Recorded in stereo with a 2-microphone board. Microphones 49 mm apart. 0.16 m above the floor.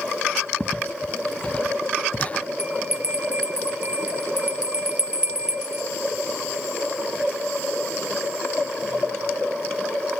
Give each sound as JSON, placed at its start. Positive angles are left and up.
{"t": 0.6, "sound": "footsteps", "side_deg": 25}
{"t": 2.6, "sound": "a bell", "side_deg": -30}